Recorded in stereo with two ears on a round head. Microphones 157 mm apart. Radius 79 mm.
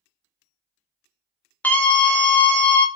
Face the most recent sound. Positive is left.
turn(degrees=10)  # may be behind; listen again after turning